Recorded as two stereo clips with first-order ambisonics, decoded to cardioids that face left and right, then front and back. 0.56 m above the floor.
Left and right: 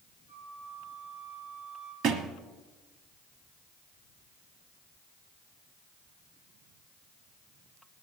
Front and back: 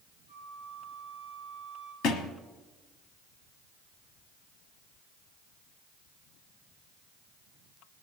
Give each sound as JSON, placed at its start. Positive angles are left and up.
{"t": 0.3, "sound": "a flute", "azimuth_deg": 45, "distance_m": 7.5}
{"t": 2.0, "sound": "a thud", "azimuth_deg": -35, "distance_m": 1.2}